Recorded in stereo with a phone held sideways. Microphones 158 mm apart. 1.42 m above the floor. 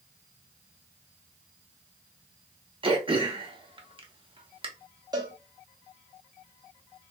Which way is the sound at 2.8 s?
35° right (ahead or behind).